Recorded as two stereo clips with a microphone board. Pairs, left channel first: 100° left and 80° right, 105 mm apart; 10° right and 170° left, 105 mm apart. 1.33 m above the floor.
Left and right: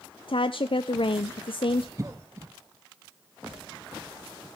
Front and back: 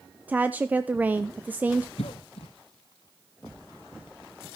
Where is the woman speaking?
100° left, 0.5 m.